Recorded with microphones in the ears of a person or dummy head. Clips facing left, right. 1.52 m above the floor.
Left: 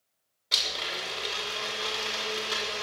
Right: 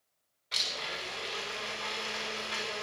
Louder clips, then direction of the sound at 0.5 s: Left 4 dB; 55° left (ahead or behind).